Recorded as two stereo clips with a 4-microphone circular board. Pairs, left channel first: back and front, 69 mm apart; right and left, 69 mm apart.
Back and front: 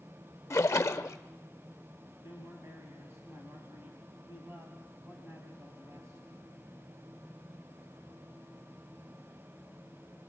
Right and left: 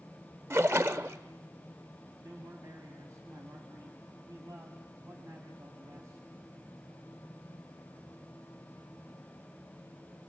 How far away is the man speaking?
About 3.5 m.